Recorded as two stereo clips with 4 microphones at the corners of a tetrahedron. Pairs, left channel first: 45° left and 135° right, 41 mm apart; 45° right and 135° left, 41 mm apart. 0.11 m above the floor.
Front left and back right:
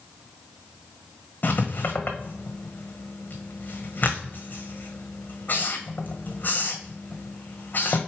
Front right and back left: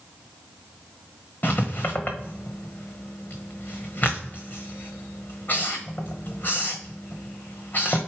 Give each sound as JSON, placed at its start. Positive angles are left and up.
{"t": 1.4, "sound": "writing", "azimuth_deg": 0, "distance_m": 1.4}